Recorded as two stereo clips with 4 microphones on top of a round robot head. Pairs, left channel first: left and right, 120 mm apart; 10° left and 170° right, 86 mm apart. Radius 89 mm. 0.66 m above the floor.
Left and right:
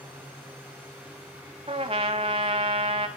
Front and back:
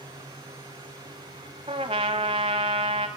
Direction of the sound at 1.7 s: 140° right.